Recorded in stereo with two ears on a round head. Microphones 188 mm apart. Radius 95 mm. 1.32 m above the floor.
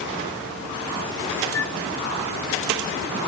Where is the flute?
65° left (ahead or behind).